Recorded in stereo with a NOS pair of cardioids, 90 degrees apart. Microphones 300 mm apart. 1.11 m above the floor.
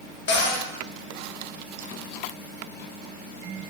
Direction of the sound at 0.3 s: 40° left.